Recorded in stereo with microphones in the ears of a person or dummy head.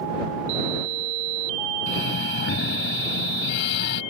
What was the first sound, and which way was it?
Breathing, 55° left (ahead or behind).